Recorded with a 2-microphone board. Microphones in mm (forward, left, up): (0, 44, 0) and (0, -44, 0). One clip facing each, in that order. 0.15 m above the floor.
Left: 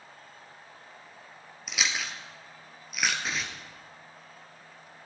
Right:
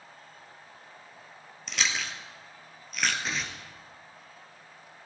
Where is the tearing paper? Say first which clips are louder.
Even; centre (ahead or behind), 1.4 m.